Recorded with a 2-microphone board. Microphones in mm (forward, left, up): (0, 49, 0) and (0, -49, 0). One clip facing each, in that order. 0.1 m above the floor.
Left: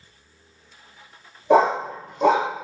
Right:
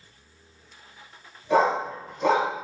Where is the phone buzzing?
No phone buzzing in this recording.